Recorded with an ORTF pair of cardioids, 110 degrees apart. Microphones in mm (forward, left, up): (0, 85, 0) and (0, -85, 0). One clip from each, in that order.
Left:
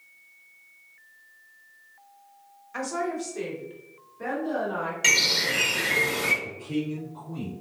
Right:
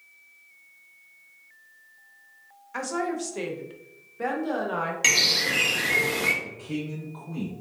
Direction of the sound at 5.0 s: 15° right.